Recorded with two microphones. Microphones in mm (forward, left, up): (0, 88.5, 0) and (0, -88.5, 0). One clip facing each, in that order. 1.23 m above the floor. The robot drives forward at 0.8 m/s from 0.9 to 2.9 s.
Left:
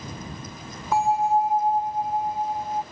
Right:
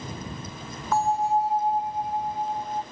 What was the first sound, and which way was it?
A bell, 10° left (ahead or behind).